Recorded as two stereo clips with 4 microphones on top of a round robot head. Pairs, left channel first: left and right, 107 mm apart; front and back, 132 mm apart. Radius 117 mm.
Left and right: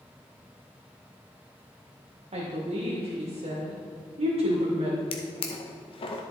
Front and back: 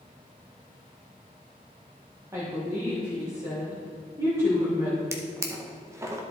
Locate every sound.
2.3 s a woman speaking: 110° right, 1.6 m
5.1 s a drawer: 115° left, 0.8 m